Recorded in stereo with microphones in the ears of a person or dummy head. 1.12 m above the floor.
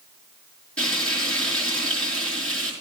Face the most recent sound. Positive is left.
turn(degrees=10)  # may be behind; listen again after turning